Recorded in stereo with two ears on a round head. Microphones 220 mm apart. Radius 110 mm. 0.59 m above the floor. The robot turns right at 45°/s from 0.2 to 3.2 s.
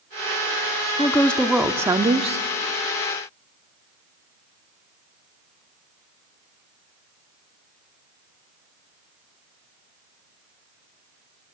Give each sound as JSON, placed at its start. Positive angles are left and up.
{"t": 1.0, "sound": "a woman speaking", "azimuth_deg": 160, "distance_m": 1.1}